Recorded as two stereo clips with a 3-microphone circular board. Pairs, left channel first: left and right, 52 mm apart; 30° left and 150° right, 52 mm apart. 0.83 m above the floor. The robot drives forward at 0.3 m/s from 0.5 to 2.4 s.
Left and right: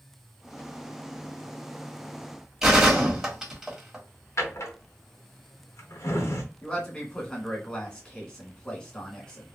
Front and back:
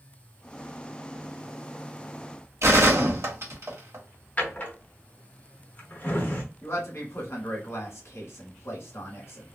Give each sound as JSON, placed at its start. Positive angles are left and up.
{"t": 2.6, "sound": "a gunshot", "azimuth_deg": -170, "distance_m": 1.4}
{"t": 4.4, "sound": "a drawer", "azimuth_deg": 85, "distance_m": 0.8}
{"t": 6.6, "sound": "a man speaking", "azimuth_deg": 20, "distance_m": 1.5}